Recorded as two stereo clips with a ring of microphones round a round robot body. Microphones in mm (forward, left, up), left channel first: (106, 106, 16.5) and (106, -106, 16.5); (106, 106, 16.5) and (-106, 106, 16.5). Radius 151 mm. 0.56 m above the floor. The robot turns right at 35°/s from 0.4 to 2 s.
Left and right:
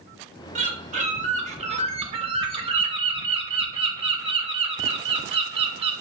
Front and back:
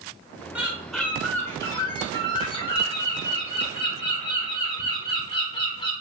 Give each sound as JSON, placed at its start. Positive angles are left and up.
{"t": 0.6, "sound": "a bird", "azimuth_deg": -100, "distance_m": 0.9}